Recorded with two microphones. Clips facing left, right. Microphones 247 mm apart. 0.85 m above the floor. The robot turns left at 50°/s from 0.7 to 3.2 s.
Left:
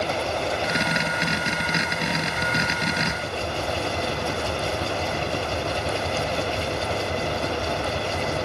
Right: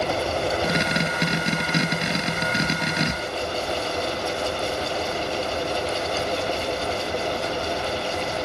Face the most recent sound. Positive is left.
turn(degrees=60)